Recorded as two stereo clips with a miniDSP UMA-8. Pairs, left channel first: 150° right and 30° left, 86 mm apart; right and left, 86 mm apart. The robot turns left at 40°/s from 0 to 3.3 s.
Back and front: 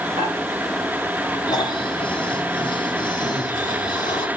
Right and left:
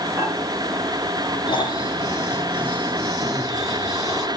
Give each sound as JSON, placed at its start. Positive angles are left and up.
{"t": 0.2, "sound": "dishes clattering", "azimuth_deg": 30, "distance_m": 5.5}
{"t": 1.5, "sound": "snoring", "azimuth_deg": -110, "distance_m": 3.5}